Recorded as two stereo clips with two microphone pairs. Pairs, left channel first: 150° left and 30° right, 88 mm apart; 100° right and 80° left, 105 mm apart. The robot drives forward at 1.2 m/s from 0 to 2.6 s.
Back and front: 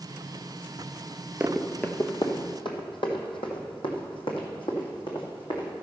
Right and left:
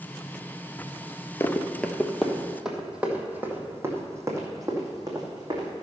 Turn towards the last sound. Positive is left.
turn(degrees=130)